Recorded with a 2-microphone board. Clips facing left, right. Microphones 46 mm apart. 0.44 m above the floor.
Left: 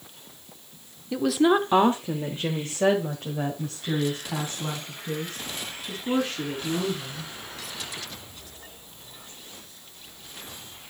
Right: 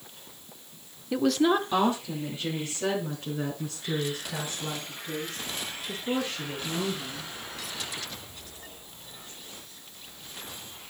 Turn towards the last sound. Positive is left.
turn(degrees=80)